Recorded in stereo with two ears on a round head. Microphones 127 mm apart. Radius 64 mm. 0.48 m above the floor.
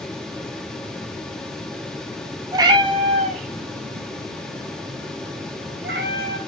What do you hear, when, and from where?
2.5 s a cat meowing: 25° right (ahead or behind), 1.0 m; by 6.4 s 70° right (ahead or behind), 2 m